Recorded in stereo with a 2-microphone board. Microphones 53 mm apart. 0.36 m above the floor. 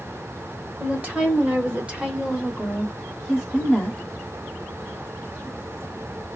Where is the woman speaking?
35° right (ahead or behind), 1.3 m; by 4.0 s 5° left (ahead or behind), 1.3 m.